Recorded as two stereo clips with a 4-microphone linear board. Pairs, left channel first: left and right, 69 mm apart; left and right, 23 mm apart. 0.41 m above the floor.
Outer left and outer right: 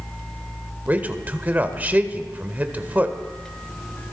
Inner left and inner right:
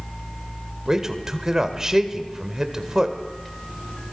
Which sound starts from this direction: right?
A man speaking, at 0.9 s.